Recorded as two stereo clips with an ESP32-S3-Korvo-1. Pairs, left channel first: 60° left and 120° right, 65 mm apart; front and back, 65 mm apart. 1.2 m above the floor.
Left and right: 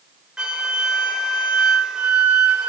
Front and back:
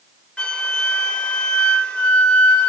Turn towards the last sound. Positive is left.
turn(degrees=-55)